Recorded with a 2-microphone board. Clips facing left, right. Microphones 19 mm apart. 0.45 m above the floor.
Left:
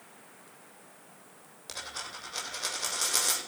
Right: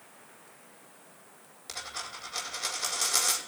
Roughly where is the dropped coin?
Centre.